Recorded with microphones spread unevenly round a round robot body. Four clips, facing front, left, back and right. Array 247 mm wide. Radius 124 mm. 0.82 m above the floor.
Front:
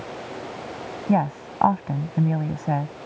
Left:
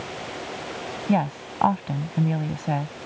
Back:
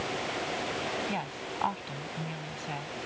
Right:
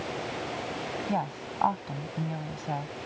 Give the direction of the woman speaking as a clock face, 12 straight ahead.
11 o'clock.